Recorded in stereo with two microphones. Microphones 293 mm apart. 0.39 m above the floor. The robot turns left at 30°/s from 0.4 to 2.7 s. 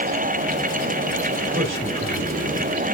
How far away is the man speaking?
About 2 m.